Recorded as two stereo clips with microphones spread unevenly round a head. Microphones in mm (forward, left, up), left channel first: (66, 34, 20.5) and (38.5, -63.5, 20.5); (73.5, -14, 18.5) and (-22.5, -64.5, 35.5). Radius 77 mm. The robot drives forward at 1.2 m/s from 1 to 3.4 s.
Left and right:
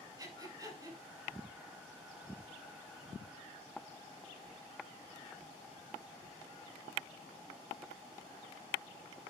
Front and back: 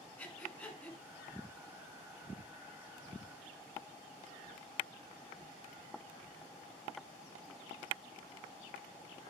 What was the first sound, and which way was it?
Breathing, 45° right.